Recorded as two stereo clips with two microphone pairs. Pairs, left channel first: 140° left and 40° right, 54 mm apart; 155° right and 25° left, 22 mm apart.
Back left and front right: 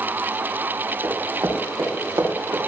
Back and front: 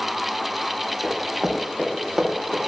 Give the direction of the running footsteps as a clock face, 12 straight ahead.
2 o'clock.